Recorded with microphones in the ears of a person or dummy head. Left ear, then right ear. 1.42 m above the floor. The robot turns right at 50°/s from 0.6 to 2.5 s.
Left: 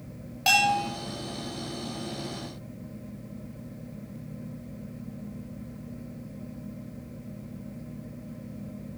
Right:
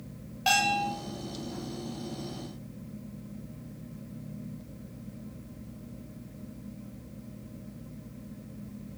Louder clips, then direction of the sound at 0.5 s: Left 3 dB; 15° left (ahead or behind).